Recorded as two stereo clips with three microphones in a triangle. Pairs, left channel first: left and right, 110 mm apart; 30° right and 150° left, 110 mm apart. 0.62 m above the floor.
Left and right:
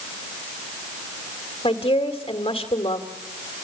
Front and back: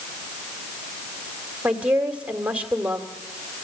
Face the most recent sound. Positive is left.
turn(degrees=75)